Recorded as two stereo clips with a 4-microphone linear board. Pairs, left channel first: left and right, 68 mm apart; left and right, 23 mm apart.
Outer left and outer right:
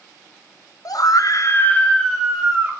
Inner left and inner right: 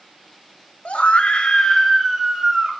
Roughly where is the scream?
Left.